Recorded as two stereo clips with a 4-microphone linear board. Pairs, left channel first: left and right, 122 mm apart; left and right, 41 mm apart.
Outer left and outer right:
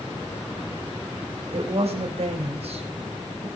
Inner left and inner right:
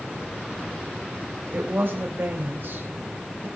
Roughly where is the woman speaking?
Right.